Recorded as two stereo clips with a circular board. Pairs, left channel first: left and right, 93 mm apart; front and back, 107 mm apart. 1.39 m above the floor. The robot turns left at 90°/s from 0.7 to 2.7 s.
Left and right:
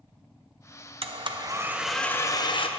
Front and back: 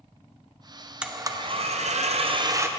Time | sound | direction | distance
1.0 | a blender | 100° right | 0.6 m